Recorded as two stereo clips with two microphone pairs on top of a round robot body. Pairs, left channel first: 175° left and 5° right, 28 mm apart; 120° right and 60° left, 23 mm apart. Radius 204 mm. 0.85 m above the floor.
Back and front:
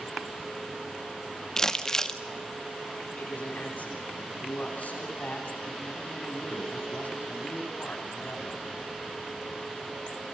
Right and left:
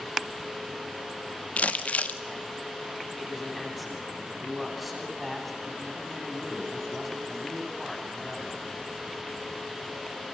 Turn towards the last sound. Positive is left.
turn(degrees=150)